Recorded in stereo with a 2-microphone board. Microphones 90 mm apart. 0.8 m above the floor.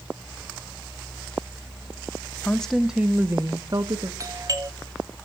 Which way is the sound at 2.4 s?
15° left (ahead or behind).